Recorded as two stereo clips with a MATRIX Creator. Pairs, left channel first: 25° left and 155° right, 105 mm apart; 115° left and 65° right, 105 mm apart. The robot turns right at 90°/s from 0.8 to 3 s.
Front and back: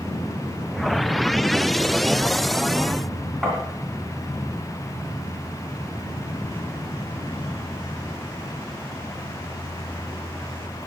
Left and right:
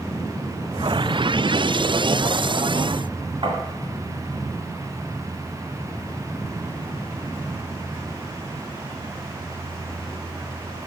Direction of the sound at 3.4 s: 75° right.